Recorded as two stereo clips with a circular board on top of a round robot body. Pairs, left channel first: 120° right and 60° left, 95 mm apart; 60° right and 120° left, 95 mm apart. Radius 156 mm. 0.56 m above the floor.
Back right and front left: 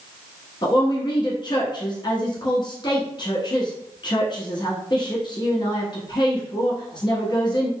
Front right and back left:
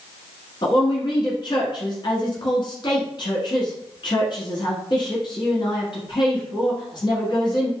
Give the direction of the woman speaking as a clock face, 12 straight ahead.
3 o'clock.